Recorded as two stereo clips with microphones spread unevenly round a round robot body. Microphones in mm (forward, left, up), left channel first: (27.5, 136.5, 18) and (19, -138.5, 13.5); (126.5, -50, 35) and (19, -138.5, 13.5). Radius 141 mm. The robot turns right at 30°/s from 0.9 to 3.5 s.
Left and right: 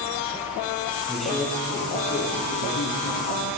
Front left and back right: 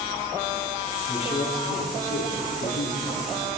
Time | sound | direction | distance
1.1 | a man speaking | 5° right | 7.5 m